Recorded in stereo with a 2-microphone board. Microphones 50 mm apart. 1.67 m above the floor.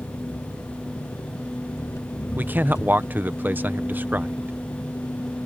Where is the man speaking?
40° right (ahead or behind).